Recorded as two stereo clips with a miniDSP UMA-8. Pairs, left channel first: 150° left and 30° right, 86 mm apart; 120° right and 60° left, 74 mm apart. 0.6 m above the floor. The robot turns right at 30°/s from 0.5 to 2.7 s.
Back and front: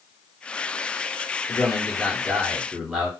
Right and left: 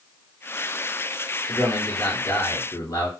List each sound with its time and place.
1.5 s a man speaking: 145° right, 1.8 m; by 3.1 s 110° right, 1.8 m